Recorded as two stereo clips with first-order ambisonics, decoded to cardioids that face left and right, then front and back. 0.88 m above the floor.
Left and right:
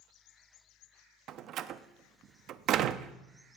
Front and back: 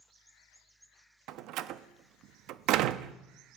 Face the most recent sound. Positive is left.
turn(degrees=-140)